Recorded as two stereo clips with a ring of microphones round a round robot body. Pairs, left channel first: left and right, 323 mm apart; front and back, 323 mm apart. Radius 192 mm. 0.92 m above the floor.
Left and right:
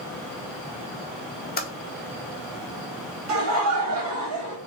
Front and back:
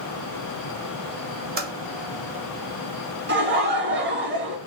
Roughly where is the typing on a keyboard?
Behind left.